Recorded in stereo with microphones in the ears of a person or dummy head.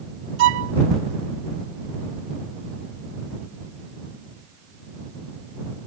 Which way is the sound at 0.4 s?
70° right (ahead or behind).